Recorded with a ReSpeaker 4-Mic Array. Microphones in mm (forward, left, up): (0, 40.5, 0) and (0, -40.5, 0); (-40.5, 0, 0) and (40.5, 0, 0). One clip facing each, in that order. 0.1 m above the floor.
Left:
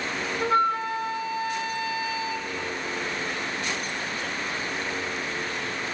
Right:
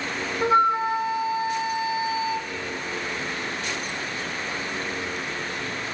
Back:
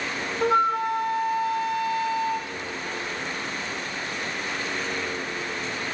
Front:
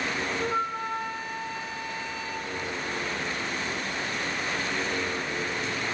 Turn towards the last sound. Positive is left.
turn(degrees=-160)